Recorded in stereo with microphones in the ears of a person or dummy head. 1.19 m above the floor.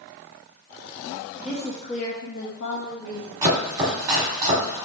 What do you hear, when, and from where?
1.4 s a woman speaking: 5° right (ahead or behind), 0.7 m; by 3.5 s 60° left (ahead or behind), 1.6 m
3.4 s chopping: 10° right (ahead or behind), 1.1 m